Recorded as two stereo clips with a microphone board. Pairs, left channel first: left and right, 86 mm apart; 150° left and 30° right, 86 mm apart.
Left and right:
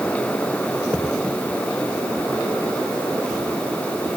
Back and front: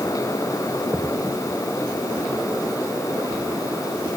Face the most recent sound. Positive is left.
No sound to turn to.